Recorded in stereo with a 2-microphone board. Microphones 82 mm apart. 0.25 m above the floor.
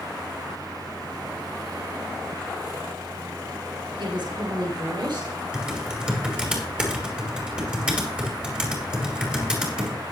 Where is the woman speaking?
70° right (ahead or behind), 5 m; by 5.4 s 65° right (ahead or behind), 5 m.